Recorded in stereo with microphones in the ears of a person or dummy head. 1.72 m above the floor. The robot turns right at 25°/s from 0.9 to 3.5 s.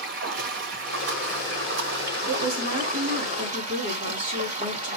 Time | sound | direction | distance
0.0 | running water | 115° right | 1.2 m
2.3 | a woman speaking | 130° right | 3 m